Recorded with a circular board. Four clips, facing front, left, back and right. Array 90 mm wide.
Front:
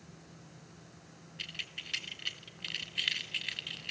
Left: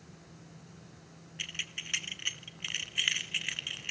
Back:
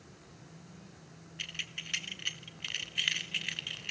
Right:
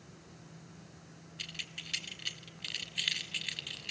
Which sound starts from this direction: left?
Keys jangling, at 1.4 s.